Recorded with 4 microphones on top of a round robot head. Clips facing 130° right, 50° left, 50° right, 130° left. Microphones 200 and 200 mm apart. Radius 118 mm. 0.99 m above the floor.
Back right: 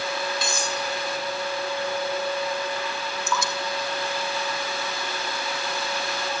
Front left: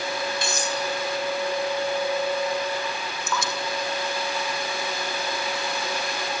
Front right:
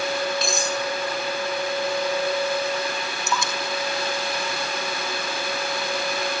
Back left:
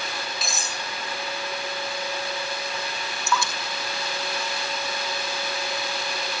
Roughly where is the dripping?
Behind right.